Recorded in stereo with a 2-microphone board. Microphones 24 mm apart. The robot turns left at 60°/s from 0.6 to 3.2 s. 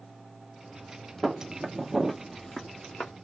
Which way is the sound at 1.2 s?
Centre (ahead or behind).